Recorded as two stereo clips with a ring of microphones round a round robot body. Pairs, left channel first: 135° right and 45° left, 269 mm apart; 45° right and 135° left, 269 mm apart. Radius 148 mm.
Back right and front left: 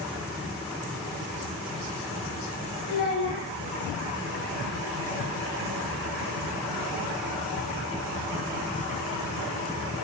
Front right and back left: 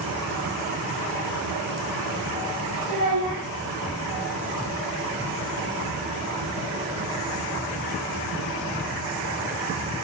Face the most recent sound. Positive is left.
turn(degrees=175)